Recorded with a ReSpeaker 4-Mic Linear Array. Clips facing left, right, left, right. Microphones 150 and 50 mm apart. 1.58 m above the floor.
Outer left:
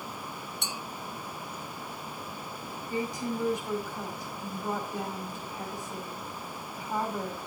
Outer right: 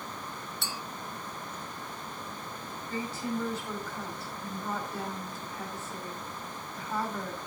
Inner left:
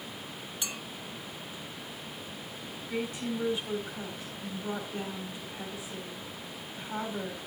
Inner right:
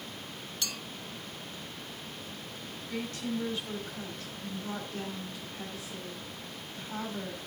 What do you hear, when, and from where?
0.6 s a clink: 20° left (ahead or behind), 0.5 m
2.9 s a woman speaking: 15° left (ahead or behind), 4.5 m